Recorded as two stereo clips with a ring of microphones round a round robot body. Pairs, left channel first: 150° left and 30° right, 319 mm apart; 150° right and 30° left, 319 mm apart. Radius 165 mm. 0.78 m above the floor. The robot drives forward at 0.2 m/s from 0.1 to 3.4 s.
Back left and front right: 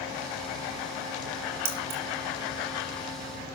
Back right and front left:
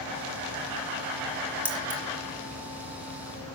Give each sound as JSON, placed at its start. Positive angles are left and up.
{"t": 1.6, "sound": "keys jangling", "azimuth_deg": -55, "distance_m": 3.5}